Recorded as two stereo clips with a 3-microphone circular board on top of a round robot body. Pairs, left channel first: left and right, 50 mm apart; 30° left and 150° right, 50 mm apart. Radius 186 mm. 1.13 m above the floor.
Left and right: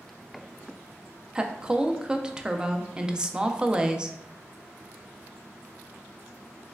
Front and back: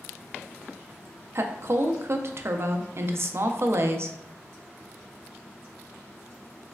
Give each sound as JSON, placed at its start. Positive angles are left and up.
{"t": 1.4, "sound": "a woman speaking", "azimuth_deg": -160, "distance_m": 0.5}